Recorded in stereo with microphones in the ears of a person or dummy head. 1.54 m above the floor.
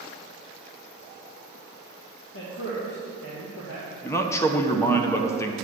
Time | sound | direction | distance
2.3 | a man speaking | 80° left | 1.5 m
4.0 | a man speaking | 15° left (ahead or behind) | 0.8 m